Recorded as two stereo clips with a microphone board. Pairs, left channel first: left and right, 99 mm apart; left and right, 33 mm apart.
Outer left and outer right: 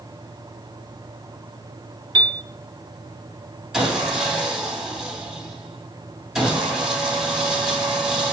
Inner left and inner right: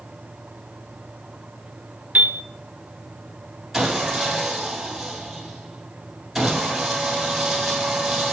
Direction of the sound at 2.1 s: 55° right (ahead or behind).